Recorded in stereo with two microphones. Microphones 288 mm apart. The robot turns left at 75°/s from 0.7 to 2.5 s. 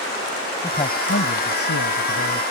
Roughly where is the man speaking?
Behind.